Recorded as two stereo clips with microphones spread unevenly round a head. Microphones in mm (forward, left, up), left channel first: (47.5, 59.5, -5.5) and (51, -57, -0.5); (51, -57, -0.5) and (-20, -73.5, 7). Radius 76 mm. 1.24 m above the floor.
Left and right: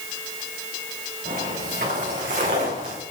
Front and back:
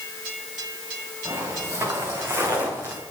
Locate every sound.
1.2 s footsteps: 125° right, 7 m; by 3.0 s 105° right, 8 m